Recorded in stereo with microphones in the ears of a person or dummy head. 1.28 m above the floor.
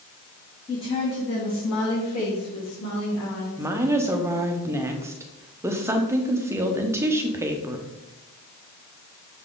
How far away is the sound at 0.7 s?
About 1.7 m.